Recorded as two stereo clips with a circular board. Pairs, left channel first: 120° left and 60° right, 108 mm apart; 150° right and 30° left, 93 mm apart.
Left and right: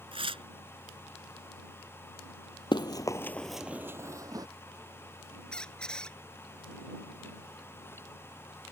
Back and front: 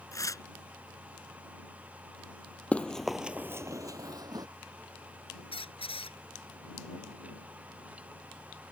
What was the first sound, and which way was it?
Tearing paper, 95° right.